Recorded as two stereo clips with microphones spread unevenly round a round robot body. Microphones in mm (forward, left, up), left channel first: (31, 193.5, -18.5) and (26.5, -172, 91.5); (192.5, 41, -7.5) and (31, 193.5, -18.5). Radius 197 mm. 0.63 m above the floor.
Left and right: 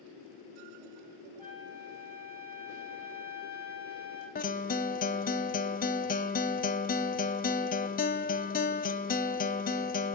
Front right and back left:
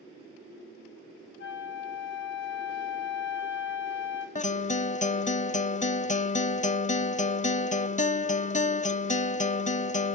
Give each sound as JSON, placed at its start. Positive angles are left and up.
{"t": 1.4, "sound": "a flute", "azimuth_deg": -10, "distance_m": 9.0}
{"t": 4.3, "sound": "a guitar", "azimuth_deg": 15, "distance_m": 0.9}